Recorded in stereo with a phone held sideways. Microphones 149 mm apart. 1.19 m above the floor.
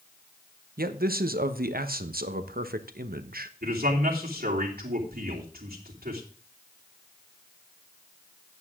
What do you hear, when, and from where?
0.8 s a man speaking: 80° right, 1.0 m
3.6 s a man speaking: 80° right, 3 m